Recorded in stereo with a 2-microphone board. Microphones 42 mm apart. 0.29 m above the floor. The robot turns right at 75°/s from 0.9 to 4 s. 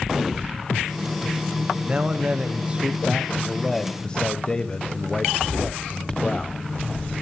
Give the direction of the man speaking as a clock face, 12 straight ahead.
4 o'clock.